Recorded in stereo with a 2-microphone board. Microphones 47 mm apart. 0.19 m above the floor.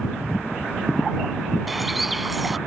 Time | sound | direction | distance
1.7 | a bird | centre (ahead or behind) | ?